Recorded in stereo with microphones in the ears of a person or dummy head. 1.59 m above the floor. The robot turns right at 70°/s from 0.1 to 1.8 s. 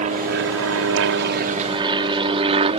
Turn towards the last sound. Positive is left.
turn(degrees=-35)  # may be behind; listen again after turning